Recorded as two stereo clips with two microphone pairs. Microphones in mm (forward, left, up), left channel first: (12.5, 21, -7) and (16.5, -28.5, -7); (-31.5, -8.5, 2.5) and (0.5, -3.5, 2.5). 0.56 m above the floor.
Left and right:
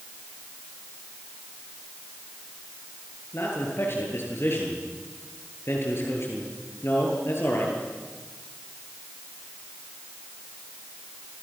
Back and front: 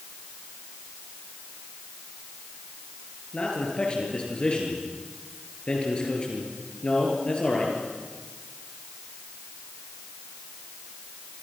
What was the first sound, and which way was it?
A man speaking, 130° left.